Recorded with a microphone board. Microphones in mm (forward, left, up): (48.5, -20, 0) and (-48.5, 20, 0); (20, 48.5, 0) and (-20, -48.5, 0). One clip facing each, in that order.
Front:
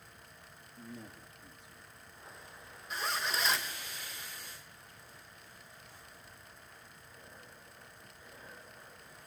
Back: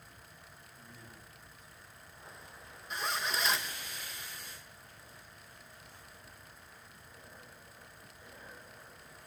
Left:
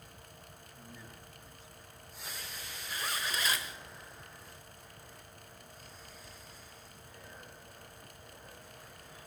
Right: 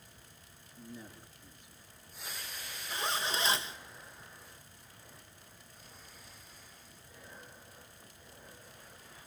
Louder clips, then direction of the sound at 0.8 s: Front 8 dB, right 5 dB; 40° right.